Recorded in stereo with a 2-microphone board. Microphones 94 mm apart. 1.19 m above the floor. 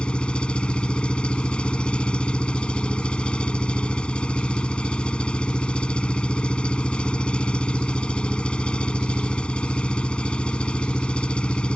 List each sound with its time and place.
0.0 s an engine running: 10° left (ahead or behind)